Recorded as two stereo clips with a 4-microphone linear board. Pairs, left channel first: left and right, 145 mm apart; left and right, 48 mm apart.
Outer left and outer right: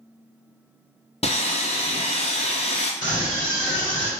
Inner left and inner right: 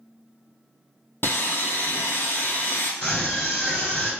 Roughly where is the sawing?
Left.